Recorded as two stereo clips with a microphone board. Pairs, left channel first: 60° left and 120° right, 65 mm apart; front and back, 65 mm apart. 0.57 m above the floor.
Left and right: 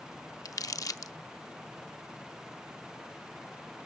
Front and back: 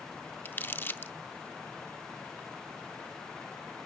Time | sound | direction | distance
0.5 | crumpling | 50° left | 0.5 m